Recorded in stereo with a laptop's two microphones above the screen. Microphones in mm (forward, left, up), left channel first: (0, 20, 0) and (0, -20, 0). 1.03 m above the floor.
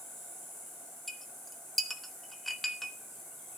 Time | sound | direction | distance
0.0 | an insect | 10° left (ahead or behind) | 6 m
1.1 | a clink | 5° left (ahead or behind) | 1.0 m